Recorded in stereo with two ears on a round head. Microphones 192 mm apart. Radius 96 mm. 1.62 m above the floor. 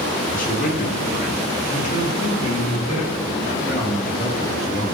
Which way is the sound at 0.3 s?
40° left (ahead or behind).